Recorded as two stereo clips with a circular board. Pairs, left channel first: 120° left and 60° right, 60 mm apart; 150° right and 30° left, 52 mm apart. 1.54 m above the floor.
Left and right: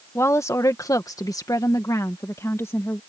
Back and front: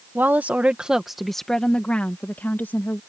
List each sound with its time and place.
0.1 s a woman speaking: 80° left; by 3.0 s 160° left